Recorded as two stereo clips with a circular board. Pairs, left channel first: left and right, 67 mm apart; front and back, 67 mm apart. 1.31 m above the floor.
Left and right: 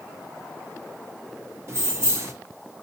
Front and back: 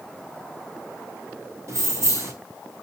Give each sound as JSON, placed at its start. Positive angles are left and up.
{"t": 1.7, "sound": "keys jangling", "azimuth_deg": -135, "distance_m": 1.5}